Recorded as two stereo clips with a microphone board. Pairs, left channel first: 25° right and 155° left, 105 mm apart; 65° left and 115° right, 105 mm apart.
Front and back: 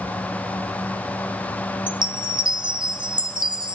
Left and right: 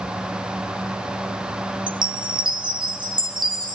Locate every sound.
1.9 s a chime: 155° right, 0.5 m